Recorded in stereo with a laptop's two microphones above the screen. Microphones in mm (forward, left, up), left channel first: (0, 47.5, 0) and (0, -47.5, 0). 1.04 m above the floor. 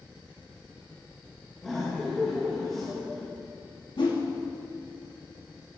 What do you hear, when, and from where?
1.6 s laughter: 5° left (ahead or behind), 1.2 m
4.0 s a whoosh: 65° left (ahead or behind), 2 m